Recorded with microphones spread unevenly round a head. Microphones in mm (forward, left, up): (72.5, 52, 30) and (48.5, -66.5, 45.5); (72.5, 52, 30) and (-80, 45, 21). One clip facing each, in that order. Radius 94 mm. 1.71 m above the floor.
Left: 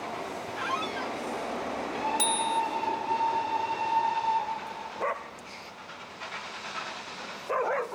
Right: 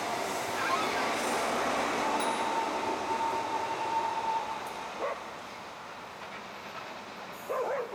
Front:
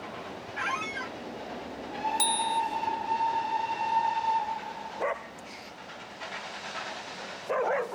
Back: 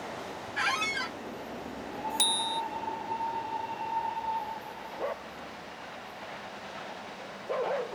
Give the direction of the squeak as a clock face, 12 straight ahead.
6 o'clock.